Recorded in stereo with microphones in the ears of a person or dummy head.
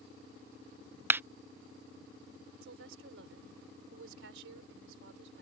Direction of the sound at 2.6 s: 80° right.